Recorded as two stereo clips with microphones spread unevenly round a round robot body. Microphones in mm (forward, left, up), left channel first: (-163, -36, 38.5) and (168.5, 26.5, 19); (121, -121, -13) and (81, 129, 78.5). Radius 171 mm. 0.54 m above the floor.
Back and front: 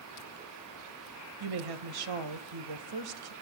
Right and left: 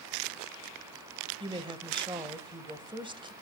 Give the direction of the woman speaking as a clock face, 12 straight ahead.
11 o'clock.